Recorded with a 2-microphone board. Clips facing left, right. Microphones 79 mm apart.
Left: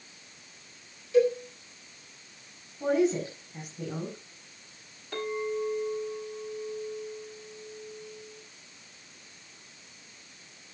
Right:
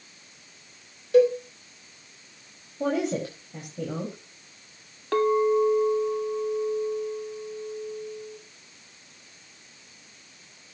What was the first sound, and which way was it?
A cowbell, 60° right (ahead or behind).